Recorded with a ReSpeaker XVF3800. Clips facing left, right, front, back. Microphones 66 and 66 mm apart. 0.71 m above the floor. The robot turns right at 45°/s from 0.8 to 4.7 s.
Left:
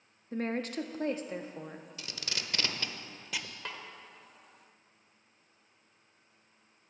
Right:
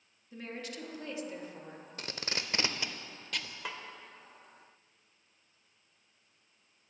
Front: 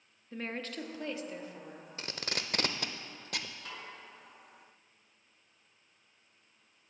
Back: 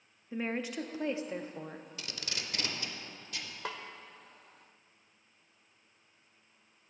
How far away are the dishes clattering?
No dishes clattering in this recording.